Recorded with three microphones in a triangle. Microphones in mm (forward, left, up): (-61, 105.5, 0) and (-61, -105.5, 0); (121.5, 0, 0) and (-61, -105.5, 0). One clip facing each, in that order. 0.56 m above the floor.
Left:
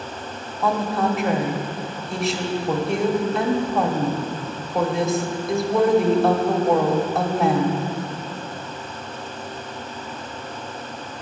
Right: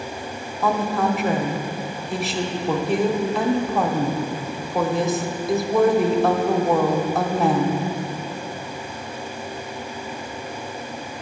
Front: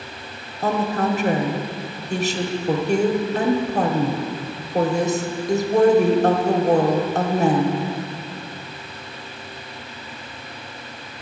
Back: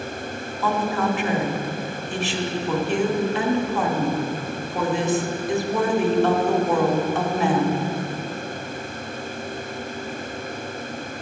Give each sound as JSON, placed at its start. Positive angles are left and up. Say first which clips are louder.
{"t": 0.6, "sound": "a woman speaking", "louder": "even, front 2 dB", "azimuth_deg": 0, "distance_m": 1.0}